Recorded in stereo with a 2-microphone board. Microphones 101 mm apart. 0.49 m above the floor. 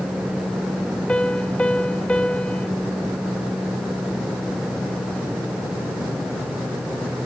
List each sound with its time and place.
1.1 s a piano: 10° left (ahead or behind)